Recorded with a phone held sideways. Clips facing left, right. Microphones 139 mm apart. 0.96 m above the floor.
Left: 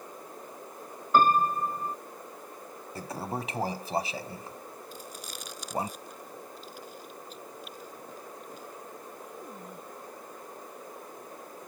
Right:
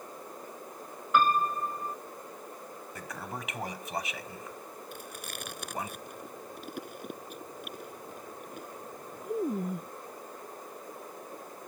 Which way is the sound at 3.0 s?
35° left (ahead or behind).